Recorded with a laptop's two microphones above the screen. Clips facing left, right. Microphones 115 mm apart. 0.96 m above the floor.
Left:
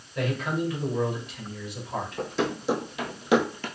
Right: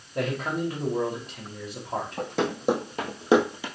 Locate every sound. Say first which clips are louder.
0.1 s a man speaking: even; 40° right (ahead or behind), 2.0 m
2.2 s running footsteps: even; 60° right (ahead or behind), 2.5 m; by 3.7 s 10° right (ahead or behind), 1.0 m